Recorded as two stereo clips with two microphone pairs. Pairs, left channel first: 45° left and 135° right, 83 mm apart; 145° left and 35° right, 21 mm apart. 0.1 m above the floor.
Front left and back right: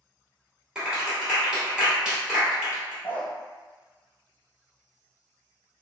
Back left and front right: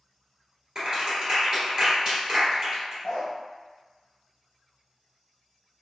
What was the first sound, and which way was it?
A clap, 60° right.